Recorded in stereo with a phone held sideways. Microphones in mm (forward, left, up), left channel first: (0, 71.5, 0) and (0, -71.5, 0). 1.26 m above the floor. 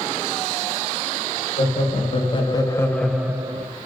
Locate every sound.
1.6 s laughter: 45° left (ahead or behind), 1.3 m; by 3.7 s 40° right (ahead or behind), 0.5 m